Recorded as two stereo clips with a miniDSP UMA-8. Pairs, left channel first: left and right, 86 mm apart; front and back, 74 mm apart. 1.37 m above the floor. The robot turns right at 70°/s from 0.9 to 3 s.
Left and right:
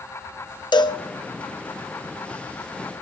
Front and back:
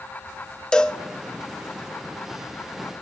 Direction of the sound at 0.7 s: 80° left.